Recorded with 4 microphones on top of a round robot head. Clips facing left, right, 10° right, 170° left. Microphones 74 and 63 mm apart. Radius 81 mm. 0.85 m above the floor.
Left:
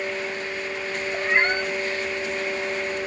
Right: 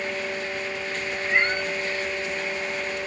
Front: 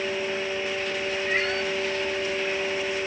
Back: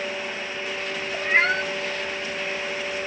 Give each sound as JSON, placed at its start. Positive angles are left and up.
{"t": 1.1, "sound": "a cat meowing", "azimuth_deg": 120, "distance_m": 1.2}